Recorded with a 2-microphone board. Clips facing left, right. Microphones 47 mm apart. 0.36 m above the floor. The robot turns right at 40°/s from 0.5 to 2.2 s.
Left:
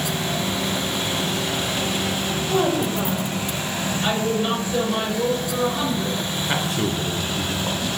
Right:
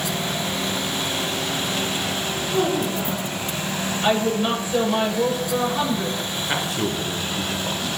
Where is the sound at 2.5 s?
30° left (ahead or behind), 1.7 m.